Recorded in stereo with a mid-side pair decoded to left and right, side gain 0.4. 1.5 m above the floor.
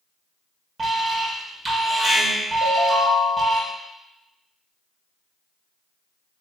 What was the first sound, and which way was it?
An alarm, 40° right.